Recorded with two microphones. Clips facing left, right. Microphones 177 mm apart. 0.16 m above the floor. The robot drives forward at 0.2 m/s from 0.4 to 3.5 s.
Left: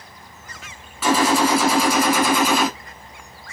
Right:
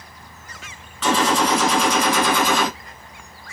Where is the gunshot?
10° left (ahead or behind), 1.2 m.